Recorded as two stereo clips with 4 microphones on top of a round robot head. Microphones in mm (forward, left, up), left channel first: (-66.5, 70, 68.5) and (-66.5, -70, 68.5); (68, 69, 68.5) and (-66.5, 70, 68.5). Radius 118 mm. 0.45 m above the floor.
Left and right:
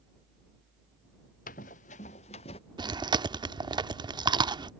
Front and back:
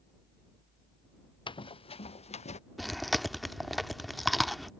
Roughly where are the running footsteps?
Ahead left.